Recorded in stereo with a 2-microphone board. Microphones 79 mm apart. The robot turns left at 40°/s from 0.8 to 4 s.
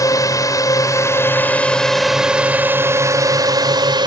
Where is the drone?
50° left; by 4.1 s 80° right.